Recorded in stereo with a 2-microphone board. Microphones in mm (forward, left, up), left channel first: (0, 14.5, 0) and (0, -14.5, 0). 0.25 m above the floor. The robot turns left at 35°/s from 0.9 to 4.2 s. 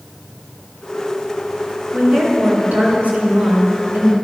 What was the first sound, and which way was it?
A woman speaking, 45° right.